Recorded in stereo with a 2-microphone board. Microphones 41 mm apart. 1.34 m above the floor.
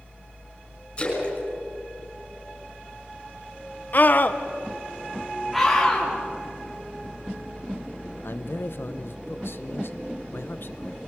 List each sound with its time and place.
1.0 s a splash: 25° left (ahead or behind), 6 m
3.9 s a scream: 45° left (ahead or behind), 1.1 m
5.5 s a scream: 5° left (ahead or behind), 2.5 m
8.2 s a man speaking: 65° left (ahead or behind), 0.8 m